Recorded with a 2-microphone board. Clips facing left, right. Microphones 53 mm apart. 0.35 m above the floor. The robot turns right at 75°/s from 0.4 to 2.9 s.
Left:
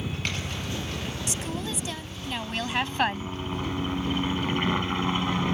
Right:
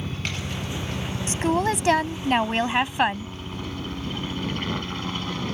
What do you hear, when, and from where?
0.0 s a helicopter: 170° right; by 5.5 s 20° left
1.3 s a woman speaking: 140° right; by 3.3 s 15° right